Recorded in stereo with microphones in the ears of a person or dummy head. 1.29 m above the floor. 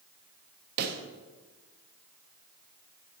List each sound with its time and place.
0.8 s a pop: 55° right (ahead or behind), 0.6 m